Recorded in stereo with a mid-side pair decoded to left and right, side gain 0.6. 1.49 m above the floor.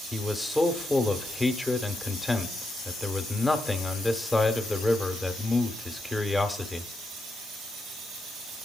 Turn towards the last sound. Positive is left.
turn(degrees=0)